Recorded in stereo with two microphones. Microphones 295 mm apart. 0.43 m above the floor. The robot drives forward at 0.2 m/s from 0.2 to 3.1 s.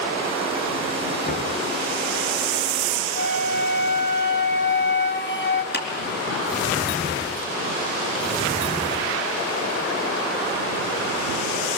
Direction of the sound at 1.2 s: 30° left (ahead or behind).